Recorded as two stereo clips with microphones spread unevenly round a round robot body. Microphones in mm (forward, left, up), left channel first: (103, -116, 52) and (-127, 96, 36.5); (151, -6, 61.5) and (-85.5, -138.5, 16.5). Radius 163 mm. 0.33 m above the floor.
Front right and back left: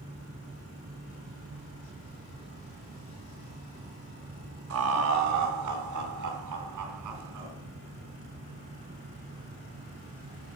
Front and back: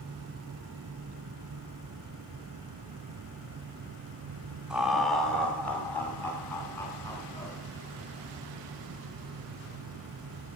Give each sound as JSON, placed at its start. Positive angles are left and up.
{"t": 4.7, "sound": "laughter", "azimuth_deg": 135, "distance_m": 1.3}